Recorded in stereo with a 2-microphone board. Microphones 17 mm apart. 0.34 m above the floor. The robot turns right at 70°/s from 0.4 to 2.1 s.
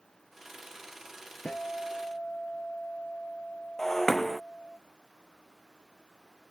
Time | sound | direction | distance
1.4 | a guitar | 90° left | ?
3.8 | breaking glass | 15° left (ahead or behind) | ?